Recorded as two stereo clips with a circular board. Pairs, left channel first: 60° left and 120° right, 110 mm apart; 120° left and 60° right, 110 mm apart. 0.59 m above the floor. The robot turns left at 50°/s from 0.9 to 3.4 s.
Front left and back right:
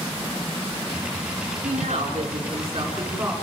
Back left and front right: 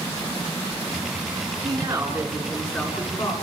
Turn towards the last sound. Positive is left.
turn(degrees=165)